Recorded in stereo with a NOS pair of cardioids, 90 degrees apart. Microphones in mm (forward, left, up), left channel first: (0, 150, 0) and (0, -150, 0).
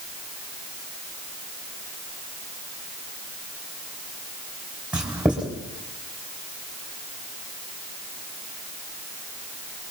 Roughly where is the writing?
Ahead.